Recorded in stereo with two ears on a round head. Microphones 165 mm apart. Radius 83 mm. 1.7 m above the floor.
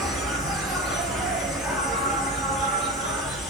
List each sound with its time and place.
0.0 s an insect: centre (ahead or behind), 1.2 m